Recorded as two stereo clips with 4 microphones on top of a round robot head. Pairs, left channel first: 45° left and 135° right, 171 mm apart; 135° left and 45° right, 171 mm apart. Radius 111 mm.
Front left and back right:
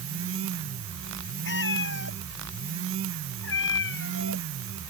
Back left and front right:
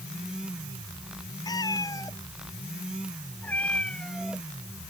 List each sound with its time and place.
1.4 s a cat meowing: 65° left; by 4.5 s 45° left